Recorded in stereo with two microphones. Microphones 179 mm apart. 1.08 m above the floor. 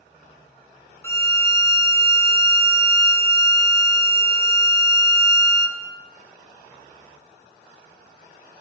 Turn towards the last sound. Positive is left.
turn(degrees=15)  # may be behind; listen again after turning